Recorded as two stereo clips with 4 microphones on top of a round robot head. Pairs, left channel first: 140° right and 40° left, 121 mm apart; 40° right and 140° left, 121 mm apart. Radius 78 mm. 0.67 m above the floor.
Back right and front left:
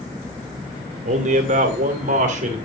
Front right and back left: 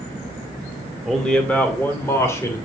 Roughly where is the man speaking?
Ahead left.